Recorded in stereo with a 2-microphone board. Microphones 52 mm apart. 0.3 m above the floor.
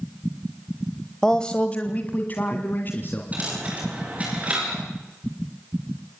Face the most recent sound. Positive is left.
turn(degrees=-25)  # may be behind; listen again after turning